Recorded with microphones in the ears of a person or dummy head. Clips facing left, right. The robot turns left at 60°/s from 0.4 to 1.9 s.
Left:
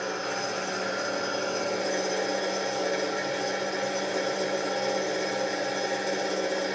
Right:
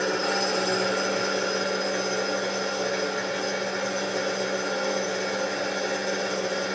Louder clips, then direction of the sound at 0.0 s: Right 6 dB; 90° right.